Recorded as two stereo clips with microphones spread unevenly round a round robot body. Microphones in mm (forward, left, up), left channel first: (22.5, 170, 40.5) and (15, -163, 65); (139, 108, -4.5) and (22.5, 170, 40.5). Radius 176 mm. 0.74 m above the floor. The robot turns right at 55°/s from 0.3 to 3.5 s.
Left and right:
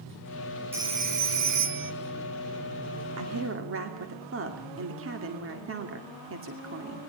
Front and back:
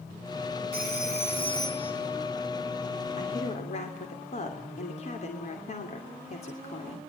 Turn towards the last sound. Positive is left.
turn(degrees=-40)